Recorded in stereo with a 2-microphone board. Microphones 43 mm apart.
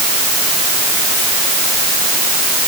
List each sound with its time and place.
Only background noise.